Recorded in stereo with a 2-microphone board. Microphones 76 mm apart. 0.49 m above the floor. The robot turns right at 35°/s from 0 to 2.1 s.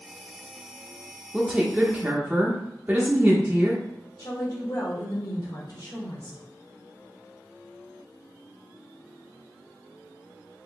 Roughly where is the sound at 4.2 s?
Left.